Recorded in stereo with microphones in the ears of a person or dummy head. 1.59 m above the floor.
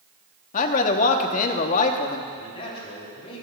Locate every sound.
0.5 s a man speaking: 45° left (ahead or behind), 0.9 m
2.3 s a man speaking: 35° left (ahead or behind), 4 m